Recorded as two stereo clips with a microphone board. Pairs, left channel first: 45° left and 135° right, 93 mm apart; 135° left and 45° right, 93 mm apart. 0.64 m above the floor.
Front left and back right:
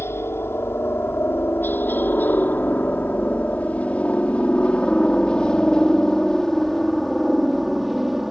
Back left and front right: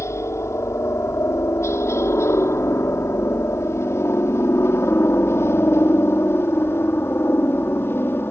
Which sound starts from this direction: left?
A helicopter, at 0.0 s.